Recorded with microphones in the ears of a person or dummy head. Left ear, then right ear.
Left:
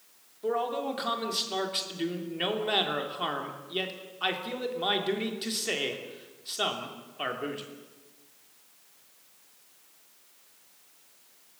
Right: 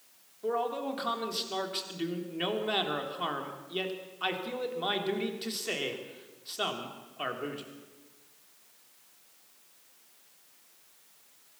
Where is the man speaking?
5° left (ahead or behind), 3 m.